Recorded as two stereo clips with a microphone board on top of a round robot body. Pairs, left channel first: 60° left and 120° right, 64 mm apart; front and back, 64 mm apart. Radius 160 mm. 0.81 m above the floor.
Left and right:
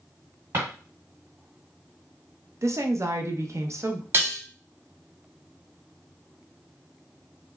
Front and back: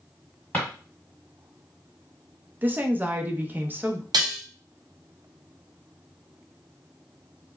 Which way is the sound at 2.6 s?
130° right.